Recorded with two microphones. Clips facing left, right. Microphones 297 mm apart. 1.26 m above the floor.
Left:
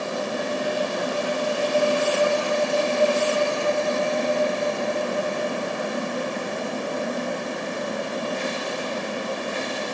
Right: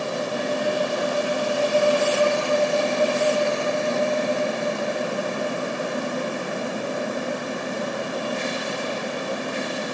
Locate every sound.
Only background noise.